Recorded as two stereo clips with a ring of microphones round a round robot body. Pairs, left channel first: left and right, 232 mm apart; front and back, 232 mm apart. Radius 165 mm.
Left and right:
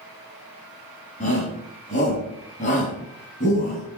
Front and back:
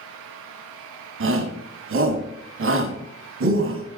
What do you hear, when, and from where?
1.2 s a shout: 155° left, 2.5 m